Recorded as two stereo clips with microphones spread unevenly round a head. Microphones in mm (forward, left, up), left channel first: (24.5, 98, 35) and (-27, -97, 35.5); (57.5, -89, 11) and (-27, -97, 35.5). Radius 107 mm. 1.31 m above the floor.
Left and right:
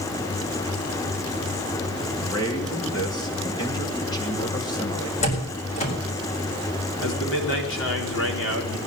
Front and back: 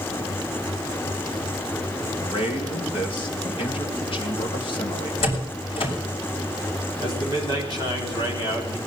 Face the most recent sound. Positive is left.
turn(degrees=50)